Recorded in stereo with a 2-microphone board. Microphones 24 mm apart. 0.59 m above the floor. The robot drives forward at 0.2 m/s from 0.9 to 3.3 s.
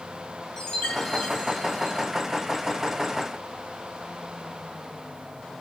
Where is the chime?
30° left (ahead or behind), 1.2 m.